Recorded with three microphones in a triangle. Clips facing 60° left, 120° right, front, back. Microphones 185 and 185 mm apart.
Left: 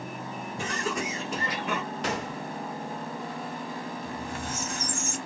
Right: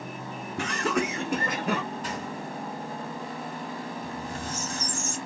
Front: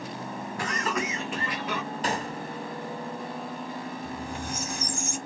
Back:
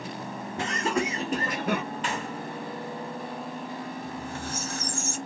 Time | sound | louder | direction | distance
0.6 | laughter | right 5 dB, back 3 dB | 115° right | 1.3 m
2.0 | a gunshot | left 2 dB, front 2 dB | 55° left | 0.5 m
4.0 | a squeak | even, front 1 dB | 70° right | 1.2 m